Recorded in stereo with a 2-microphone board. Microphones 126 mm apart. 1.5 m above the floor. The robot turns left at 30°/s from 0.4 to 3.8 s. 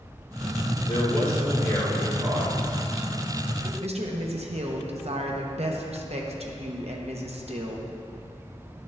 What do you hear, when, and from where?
0.9 s a man speaking: 45° left, 3 m; by 3.7 s 40° right, 3 m
3.8 s a woman speaking: 55° right (ahead or behind), 1.0 m